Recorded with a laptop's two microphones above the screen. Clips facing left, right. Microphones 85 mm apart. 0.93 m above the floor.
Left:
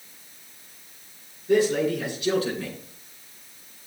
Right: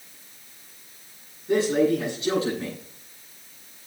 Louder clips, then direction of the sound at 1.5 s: Even; 25° right (ahead or behind).